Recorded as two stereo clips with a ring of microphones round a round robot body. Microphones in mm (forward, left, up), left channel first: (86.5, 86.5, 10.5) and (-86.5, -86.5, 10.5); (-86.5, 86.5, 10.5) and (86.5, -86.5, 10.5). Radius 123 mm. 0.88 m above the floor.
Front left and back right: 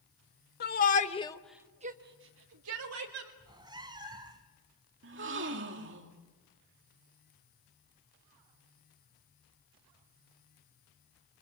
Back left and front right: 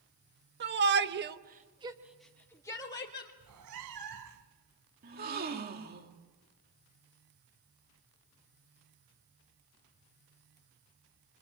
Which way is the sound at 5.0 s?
95° right.